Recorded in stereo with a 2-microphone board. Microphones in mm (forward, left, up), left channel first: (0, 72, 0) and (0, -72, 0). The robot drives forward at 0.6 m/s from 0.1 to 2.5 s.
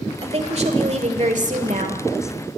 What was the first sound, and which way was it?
A woman speaking, 45° right (ahead or behind).